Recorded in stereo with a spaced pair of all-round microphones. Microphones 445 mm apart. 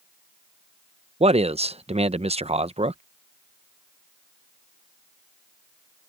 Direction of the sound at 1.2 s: 15° right (ahead or behind).